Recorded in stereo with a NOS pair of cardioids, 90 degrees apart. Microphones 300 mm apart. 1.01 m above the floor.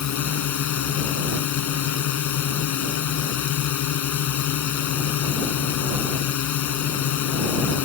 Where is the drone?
65° left.